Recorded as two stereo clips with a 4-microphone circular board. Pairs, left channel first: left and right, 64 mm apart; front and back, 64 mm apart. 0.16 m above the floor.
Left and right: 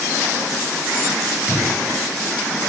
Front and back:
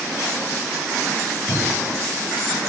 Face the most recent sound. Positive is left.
turn(degrees=-35)